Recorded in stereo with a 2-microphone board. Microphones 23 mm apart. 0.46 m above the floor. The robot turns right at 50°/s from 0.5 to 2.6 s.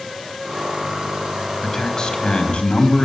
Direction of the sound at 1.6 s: 20° left.